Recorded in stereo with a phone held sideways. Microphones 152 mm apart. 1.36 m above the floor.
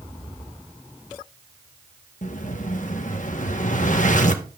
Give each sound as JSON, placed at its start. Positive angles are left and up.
{"t": 2.2, "sound": "an explosion", "side_deg": 55, "distance_m": 1.2}